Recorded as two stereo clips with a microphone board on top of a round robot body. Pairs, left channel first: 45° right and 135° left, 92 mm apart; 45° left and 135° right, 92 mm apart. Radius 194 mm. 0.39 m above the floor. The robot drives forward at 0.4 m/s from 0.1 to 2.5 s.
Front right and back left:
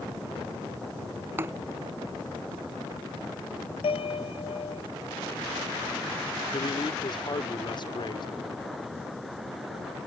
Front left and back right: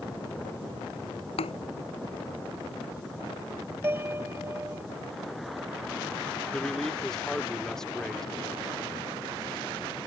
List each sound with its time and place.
1.4 s a thud: 65° left; by 1.5 s 70° left
3.8 s a piano: 65° right
6.5 s a man speaking: 35° right